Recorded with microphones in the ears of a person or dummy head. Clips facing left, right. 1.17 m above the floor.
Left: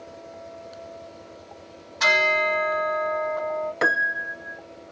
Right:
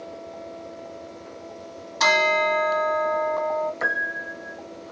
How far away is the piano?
About 0.5 m.